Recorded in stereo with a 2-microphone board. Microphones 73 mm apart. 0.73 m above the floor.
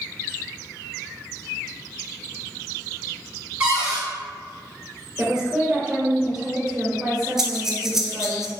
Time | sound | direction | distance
3.6 | a cupboard door | 15° right (ahead or behind) | 1.5 m
5.2 | a woman speaking | 10° right (ahead or behind) | 1.6 m
7.4 | breathing | 5° right (ahead or behind) | 0.5 m